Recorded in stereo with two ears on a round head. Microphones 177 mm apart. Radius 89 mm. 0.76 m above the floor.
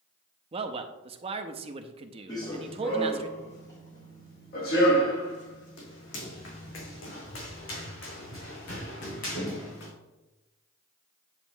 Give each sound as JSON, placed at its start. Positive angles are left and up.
{"t": 0.5, "sound": "a man speaking", "side_deg": -30, "distance_m": 0.6}
{"t": 2.3, "sound": "running footsteps", "side_deg": 20, "distance_m": 2.5}